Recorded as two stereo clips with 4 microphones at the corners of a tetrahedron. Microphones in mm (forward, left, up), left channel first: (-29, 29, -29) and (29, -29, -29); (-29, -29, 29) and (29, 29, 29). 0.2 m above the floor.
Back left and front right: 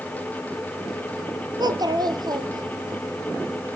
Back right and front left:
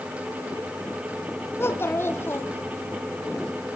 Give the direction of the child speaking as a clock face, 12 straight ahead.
3 o'clock.